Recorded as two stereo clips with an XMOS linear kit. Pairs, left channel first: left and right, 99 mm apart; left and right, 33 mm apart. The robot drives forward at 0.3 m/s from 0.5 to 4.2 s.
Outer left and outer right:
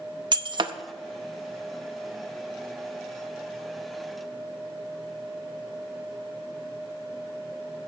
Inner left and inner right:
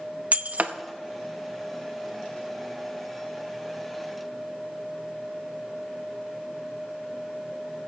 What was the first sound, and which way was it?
Breaking glass, 50° right (ahead or behind).